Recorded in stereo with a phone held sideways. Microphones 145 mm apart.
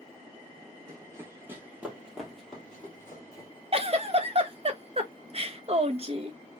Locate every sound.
0.9 s running footsteps: 25° right (ahead or behind), 2 m; by 3.5 s 20° left (ahead or behind), 1.7 m
3.7 s a giggle: 40° right (ahead or behind), 0.6 m